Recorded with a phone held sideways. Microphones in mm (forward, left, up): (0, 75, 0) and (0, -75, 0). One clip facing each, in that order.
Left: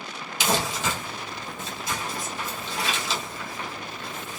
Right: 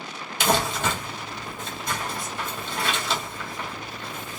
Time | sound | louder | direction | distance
0.4 | crumpling | right 3 dB | 55° right (ahead or behind) | 1.8 m